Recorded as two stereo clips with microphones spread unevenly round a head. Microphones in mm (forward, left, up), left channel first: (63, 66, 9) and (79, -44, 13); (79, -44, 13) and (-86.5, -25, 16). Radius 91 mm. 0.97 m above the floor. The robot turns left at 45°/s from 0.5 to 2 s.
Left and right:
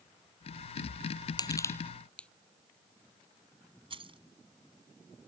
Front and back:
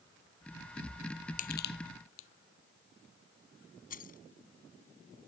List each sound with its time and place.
1.4 s crushing: 45° left; by 2.3 s 20° left
3.9 s keys jangling: 45° right